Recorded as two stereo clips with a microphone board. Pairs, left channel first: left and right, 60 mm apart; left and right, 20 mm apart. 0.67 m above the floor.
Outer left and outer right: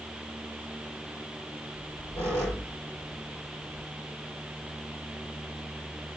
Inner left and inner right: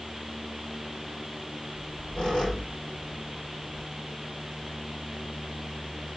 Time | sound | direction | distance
1.7 | a squeak | 45° left (ahead or behind) | 6.5 m